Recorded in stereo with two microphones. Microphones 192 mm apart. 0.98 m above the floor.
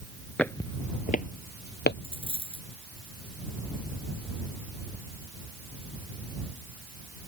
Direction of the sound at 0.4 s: 5° left (ahead or behind).